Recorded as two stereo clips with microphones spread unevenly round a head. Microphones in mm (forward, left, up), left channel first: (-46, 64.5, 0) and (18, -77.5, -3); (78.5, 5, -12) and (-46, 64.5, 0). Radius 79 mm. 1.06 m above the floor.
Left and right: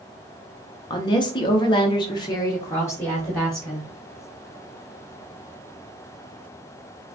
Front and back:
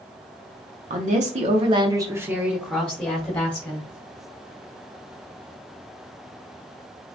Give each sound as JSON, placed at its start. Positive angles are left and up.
{"t": 0.9, "sound": "a woman speaking", "azimuth_deg": 170, "distance_m": 1.0}